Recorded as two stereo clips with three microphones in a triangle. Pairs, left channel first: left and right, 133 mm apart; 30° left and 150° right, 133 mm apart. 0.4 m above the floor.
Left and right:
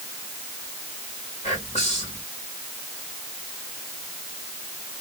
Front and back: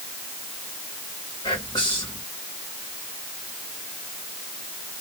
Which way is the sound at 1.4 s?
80° left.